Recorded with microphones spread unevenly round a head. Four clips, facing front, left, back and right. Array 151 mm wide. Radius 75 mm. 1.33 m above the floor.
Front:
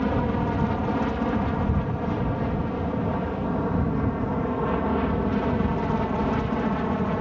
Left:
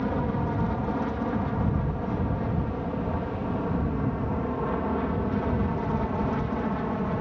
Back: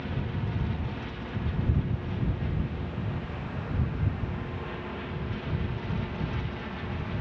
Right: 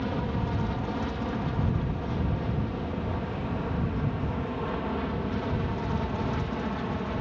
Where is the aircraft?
20° left.